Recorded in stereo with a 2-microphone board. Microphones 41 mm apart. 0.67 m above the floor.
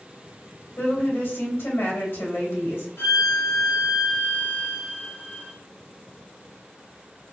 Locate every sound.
0.8 s a woman speaking: 75° left (ahead or behind), 2.5 m
3.0 s a violin: 85° left, 2 m